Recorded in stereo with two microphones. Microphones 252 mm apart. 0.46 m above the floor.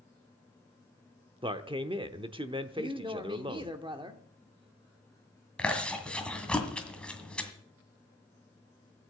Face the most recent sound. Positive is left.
turn(degrees=5)  # may be behind; listen again after turning